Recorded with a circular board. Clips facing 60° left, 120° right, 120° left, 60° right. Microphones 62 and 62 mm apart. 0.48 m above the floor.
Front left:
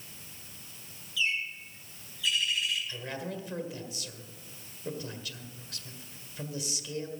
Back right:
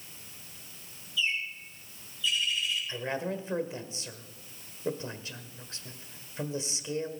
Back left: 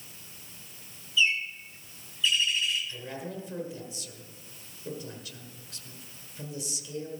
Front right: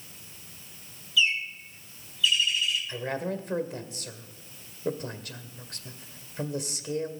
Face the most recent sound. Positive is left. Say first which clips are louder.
# back right 5 dB, front right 7 dB
turn(degrees=-65)